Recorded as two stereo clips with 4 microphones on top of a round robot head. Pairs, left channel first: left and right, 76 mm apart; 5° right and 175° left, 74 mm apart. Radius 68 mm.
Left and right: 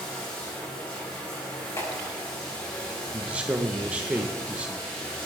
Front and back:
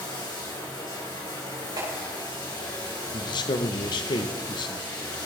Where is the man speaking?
15° right, 1.1 m.